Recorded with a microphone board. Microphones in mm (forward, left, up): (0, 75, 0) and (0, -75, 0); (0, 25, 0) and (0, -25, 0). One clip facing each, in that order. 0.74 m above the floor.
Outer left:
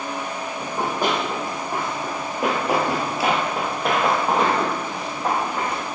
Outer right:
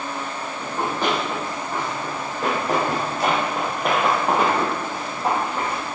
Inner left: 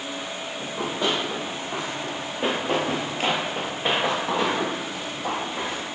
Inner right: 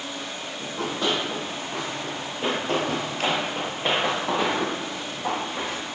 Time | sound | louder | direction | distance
0.6 | running footsteps | outer left 1 dB, inner left 1 dB | 15° left (ahead or behind) | 1.7 m